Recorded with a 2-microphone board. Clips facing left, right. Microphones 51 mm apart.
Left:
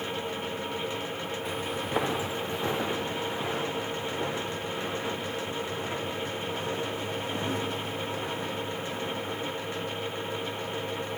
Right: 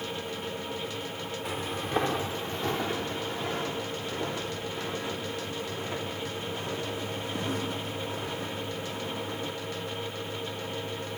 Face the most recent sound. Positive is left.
turn(degrees=40)  # may be behind; listen again after turning